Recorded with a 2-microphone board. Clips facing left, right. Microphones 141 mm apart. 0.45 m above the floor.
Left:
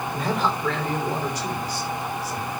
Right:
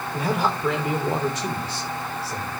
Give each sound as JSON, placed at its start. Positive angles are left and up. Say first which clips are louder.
{"t": 0.1, "sound": "a man speaking", "louder": "right 2 dB", "side_deg": -10, "distance_m": 1.5}